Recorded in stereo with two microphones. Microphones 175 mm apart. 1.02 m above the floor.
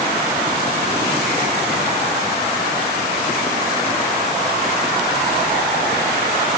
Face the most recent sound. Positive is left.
No sound to turn to.